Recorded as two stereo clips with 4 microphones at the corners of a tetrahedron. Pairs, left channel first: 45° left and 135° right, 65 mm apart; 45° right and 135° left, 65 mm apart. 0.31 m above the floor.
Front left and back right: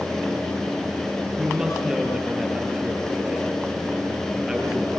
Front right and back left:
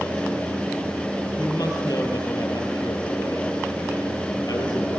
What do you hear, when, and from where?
1.4 s a woman speaking: 55° right, 6 m